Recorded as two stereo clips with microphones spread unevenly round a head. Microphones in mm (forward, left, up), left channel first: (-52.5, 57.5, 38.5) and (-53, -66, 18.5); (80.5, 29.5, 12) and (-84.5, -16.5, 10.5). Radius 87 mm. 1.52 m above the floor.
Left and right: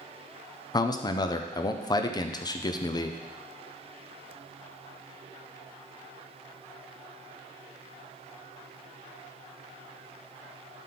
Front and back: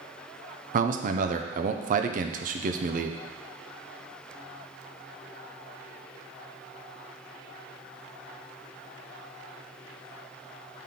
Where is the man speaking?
150° left, 0.6 m.